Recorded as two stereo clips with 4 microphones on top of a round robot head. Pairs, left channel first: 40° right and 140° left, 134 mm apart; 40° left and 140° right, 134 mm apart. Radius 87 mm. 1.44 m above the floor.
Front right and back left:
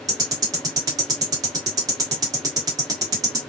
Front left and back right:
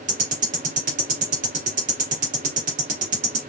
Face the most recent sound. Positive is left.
turn(degrees=-160)